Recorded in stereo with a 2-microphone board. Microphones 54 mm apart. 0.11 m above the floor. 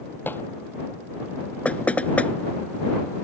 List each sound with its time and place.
0.3 s dishes clattering: 40° left (ahead or behind)
1.6 s knocking: 25° left (ahead or behind)